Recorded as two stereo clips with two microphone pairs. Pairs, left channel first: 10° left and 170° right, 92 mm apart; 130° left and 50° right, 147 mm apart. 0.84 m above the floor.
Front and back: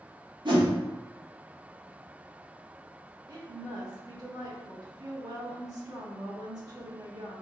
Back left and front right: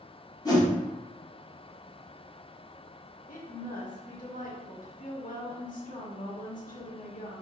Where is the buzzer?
I don't hear a buzzer.